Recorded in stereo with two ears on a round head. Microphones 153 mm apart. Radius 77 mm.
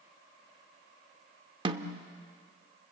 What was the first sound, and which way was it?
A snare drum, 30° right (ahead or behind).